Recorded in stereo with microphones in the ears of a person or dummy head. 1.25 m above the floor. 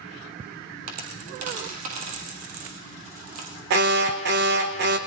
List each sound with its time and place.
0.9 s a dropped coin: 40° right (ahead or behind), 2 m
3.7 s an alarm: 55° right (ahead or behind), 1.5 m